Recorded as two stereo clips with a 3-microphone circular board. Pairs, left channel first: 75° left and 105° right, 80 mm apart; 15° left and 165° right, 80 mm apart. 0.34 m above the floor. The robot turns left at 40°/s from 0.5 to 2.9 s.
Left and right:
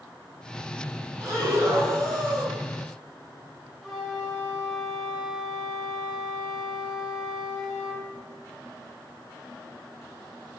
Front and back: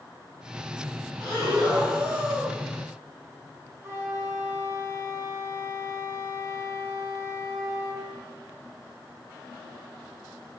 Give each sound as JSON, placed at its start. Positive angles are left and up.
{"t": 1.2, "sound": "breathing", "azimuth_deg": -75, "distance_m": 1.9}
{"t": 3.8, "sound": "a flute", "azimuth_deg": 160, "distance_m": 0.8}